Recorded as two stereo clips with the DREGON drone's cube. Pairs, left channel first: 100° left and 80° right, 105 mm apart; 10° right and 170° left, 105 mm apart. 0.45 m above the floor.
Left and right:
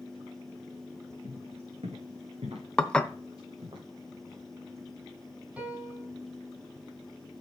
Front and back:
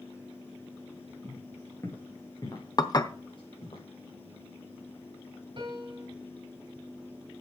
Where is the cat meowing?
I don't hear a cat meowing.